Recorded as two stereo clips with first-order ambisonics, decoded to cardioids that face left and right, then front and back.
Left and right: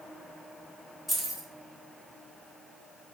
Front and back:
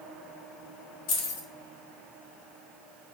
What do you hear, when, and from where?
1.1 s keys jangling: 5° right, 1.1 m